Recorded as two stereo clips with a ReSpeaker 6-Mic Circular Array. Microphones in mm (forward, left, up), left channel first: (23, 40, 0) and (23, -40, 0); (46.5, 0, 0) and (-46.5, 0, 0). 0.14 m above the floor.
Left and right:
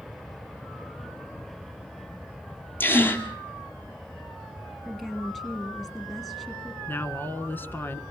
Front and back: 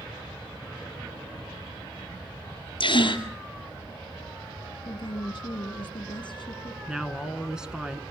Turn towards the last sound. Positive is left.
turn(degrees=110)